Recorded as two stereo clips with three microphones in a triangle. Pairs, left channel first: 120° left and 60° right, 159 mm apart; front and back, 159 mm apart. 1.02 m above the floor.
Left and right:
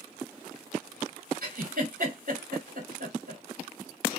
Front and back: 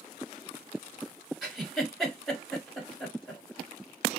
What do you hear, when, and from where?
1.4 s a giggle: 90° right, 1.8 m